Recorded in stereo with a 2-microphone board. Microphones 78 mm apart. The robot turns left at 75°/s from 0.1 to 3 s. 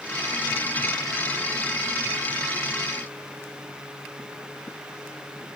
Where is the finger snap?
I don't hear a finger snap.